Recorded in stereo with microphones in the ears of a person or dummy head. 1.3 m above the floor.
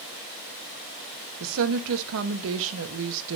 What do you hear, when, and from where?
1.4 s a woman speaking: 70° right (ahead or behind), 1.4 m